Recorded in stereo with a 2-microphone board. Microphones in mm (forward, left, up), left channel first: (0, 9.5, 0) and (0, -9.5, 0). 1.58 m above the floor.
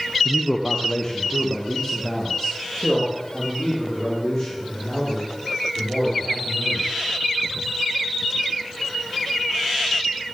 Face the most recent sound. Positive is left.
turn(degrees=0)  # may be behind; listen again after turning